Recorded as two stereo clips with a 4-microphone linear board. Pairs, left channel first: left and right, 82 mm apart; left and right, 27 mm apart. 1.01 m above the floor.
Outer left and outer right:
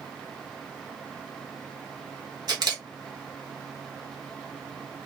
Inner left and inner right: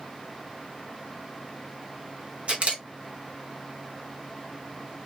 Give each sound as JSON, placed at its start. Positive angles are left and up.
{"t": 2.5, "sound": "a camera shutter", "side_deg": -50, "distance_m": 1.0}